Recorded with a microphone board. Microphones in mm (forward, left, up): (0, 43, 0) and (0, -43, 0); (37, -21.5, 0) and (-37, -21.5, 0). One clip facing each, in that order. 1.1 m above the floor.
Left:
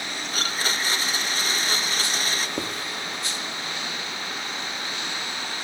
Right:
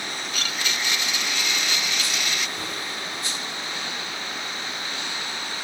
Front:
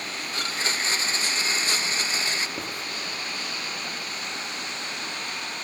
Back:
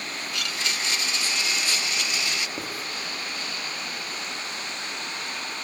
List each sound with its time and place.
0.3 s a blender: 45° left, 0.5 m
2.6 s writing: 95° left, 2.5 m